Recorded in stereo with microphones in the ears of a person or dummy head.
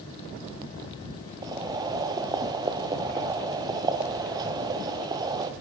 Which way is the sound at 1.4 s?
20° right (ahead or behind).